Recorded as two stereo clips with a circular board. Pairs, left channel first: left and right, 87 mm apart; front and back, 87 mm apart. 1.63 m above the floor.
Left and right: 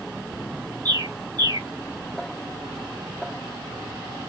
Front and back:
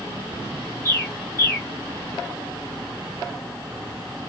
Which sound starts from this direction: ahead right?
A bird, at 0.8 s.